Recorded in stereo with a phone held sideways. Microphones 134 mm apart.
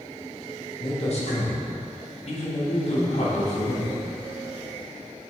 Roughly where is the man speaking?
Left.